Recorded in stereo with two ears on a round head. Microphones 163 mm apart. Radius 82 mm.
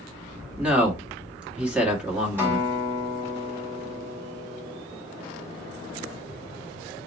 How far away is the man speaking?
About 1.5 m.